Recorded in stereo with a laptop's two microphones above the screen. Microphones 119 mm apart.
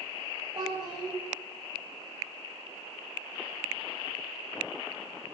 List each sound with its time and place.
0.6 s a child speaking: 40° right (ahead or behind), 2 m